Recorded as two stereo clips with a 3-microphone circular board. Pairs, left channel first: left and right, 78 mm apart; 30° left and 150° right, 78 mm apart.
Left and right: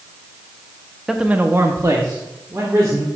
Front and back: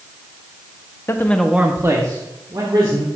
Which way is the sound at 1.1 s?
10° right.